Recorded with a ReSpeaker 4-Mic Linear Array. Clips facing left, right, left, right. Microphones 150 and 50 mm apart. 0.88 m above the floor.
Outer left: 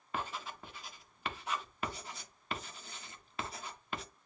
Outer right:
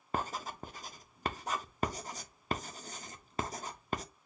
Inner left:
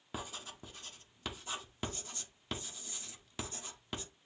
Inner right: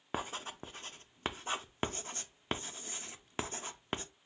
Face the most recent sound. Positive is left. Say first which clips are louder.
# outer right 4 dB, inner right 5 dB
turn(degrees=-40)  # may be behind; listen again after turning